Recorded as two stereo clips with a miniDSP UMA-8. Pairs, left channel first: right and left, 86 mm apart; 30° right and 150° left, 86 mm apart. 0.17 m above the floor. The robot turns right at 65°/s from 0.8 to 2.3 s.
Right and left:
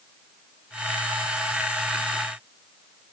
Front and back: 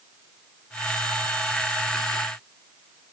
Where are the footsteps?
I don't hear footsteps.